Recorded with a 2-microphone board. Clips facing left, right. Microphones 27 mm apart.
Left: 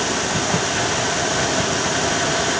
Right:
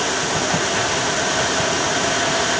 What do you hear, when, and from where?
Only background noise.